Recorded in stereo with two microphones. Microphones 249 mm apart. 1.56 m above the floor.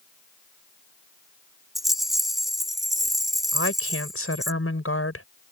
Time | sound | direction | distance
1.8 | a rattle | centre (ahead or behind) | ?
3.5 | a woman speaking | 65° left (ahead or behind) | ?